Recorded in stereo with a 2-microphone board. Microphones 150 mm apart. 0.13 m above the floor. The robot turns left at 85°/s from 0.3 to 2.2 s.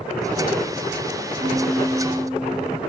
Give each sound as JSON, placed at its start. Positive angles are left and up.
{"t": 1.4, "sound": "a piano", "azimuth_deg": -30, "distance_m": 9.0}